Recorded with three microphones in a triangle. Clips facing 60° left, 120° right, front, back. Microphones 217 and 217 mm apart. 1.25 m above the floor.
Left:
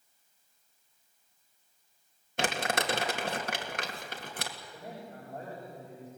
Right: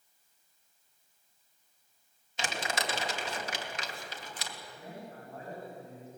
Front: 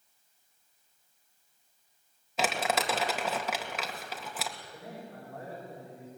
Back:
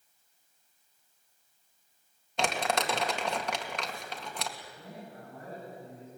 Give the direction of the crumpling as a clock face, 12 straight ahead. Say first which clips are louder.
Left 5 dB, even; 9 o'clock.